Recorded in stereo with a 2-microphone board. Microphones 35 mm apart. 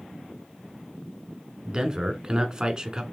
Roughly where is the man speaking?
Right.